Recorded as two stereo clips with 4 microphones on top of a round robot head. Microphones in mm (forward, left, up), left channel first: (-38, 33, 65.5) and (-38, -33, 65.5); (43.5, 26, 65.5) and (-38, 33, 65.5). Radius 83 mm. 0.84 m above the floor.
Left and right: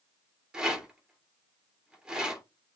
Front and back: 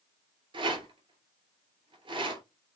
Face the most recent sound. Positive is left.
turn(degrees=-165)